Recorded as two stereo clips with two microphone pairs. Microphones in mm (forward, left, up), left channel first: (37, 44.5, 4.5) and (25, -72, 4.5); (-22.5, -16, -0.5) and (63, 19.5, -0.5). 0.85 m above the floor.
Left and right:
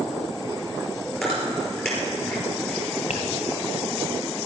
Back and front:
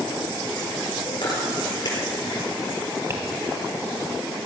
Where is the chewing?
170° left, 4.5 m.